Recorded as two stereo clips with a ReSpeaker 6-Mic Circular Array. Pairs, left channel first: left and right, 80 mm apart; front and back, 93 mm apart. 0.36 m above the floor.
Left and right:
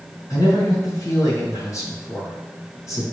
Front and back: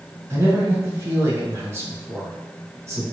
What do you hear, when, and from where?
0.3 s a man speaking: 125° left, 1.8 m